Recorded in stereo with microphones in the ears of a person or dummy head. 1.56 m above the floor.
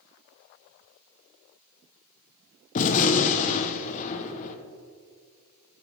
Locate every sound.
2.8 s a gunshot: 40° left (ahead or behind), 0.8 m